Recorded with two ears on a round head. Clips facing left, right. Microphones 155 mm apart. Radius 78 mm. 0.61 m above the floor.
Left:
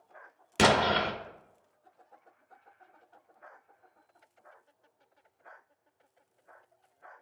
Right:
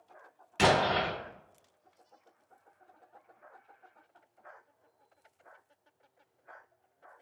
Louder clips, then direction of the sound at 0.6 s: Left 1 dB; 50° left (ahead or behind).